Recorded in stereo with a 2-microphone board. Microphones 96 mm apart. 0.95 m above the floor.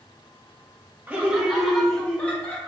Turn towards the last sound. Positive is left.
turn(degrees=15)  # may be behind; listen again after turning